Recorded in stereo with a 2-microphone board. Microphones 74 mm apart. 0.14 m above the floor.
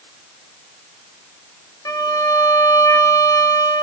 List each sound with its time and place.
1.9 s a violin: 55° left (ahead or behind), 0.6 m